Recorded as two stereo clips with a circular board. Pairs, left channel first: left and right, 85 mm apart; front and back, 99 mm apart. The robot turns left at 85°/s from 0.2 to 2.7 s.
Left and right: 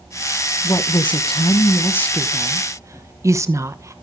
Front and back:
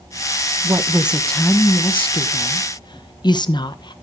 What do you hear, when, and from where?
0.6 s a woman speaking: 135° left, 1.1 m; by 3.9 s 40° right, 1.1 m